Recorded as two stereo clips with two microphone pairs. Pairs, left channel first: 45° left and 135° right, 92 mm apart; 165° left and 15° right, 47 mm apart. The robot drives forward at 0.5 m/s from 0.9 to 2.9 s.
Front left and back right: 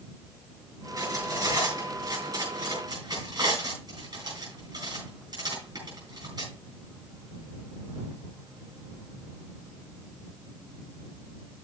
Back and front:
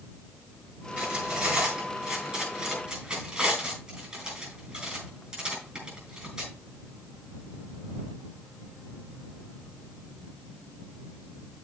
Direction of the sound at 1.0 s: 85° right.